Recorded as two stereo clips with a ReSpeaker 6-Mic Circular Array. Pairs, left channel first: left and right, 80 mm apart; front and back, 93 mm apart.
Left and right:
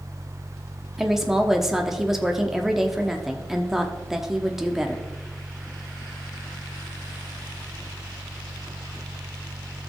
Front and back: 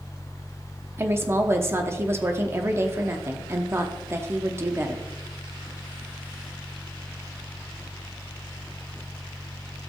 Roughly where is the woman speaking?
Behind.